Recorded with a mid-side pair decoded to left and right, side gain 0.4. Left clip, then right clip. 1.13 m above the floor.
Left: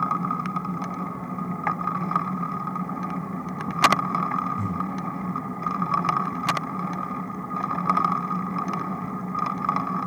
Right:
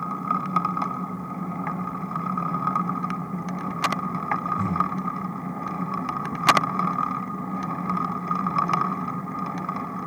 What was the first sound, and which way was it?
Breathing, straight ahead.